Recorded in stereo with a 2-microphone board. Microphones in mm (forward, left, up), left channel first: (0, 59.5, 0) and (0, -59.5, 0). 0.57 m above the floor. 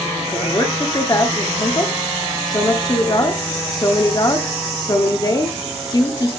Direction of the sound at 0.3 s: 35° left (ahead or behind).